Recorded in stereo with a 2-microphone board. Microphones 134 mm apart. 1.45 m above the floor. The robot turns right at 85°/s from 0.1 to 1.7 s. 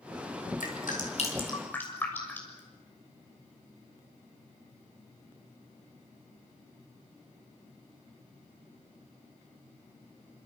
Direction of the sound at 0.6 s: 75° left (ahead or behind).